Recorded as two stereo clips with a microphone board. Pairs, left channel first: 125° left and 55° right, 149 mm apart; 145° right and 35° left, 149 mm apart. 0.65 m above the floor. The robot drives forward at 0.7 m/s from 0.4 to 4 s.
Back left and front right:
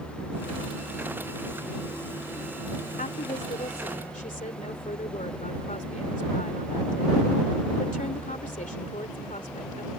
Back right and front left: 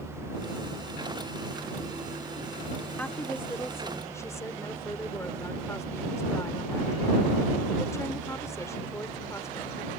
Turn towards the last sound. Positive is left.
turn(degrees=145)